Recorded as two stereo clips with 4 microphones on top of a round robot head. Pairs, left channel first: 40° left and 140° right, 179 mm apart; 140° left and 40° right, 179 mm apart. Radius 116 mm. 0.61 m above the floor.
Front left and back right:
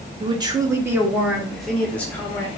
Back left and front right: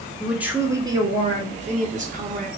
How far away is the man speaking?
About 1.2 m.